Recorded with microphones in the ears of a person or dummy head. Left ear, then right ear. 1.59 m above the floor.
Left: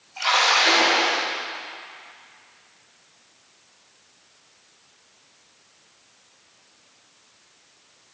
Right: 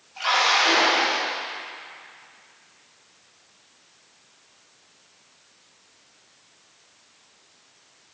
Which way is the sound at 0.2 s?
10° left (ahead or behind).